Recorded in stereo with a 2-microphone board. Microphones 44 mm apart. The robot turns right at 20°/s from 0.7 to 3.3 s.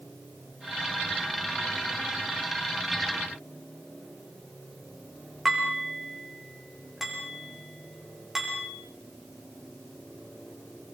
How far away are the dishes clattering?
About 5.5 m.